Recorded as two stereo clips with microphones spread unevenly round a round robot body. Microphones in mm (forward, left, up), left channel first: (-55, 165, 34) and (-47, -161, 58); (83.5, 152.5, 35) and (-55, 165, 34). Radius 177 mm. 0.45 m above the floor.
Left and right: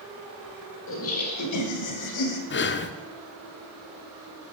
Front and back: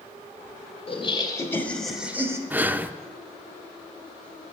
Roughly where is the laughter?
Ahead left.